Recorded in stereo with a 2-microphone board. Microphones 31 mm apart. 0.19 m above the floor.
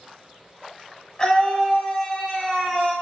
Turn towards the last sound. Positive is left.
turn(degrees=-10)  # may be behind; listen again after turning